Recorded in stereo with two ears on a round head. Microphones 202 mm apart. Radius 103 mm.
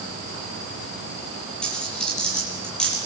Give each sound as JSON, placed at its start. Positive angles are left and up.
{"t": 1.6, "sound": "a dropped coin", "side_deg": 5, "distance_m": 9.0}